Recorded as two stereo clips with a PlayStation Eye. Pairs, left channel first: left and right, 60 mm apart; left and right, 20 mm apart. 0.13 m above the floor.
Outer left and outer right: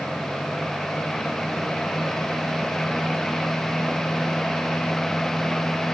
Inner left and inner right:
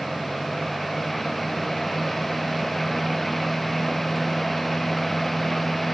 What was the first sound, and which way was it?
Only background noise.